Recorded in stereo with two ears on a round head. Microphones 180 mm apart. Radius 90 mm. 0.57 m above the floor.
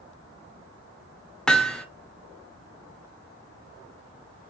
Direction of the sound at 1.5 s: 5° left (ahead or behind).